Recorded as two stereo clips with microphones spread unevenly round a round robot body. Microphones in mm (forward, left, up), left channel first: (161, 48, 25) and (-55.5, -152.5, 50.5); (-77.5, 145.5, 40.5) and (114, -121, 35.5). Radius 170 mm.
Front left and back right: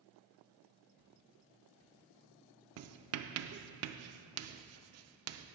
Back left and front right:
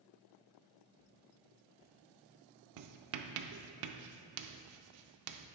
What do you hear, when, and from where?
0.9 s footsteps: 170° right, 3 m; by 3.4 s 145° right, 2.5 m
2.8 s writing: 95° right, 0.5 m